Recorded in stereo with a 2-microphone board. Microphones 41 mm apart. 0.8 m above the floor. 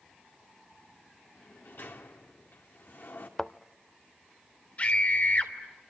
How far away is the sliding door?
About 2.5 m.